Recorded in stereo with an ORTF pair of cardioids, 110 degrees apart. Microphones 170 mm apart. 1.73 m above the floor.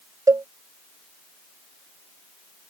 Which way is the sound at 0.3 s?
20° right.